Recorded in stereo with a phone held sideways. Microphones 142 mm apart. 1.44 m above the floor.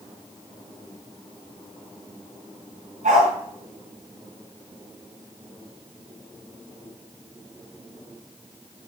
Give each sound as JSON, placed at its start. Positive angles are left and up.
{"t": 3.0, "sound": "a dog barking", "side_deg": -75, "distance_m": 6.0}